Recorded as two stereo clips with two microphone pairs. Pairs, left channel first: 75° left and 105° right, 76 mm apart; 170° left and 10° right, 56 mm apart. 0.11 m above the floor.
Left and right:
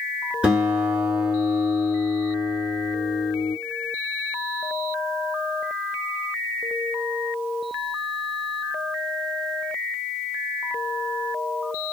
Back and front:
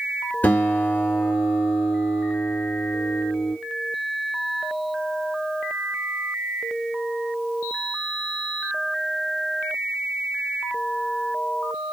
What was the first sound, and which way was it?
A guitar, 170° right.